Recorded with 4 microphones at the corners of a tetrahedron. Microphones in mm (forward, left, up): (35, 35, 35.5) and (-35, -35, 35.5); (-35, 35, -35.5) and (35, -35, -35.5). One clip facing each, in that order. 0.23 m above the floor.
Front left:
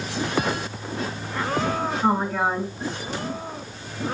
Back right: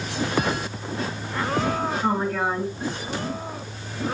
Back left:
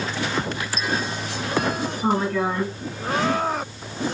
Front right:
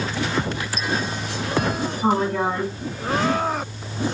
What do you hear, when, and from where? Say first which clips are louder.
2.0 s a woman speaking: front left 3 dB, front right 2 dB; 15° right, 1.8 m